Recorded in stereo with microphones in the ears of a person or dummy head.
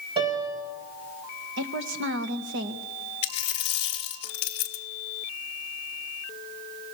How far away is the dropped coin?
About 1.1 m.